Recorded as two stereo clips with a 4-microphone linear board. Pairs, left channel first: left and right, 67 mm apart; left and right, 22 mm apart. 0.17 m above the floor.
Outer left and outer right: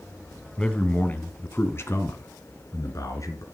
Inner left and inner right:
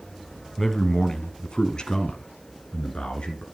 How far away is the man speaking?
About 1.5 m.